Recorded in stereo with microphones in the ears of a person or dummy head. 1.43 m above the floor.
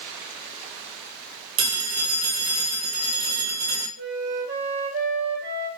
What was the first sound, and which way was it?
A phone ringing, 40° right (ahead or behind).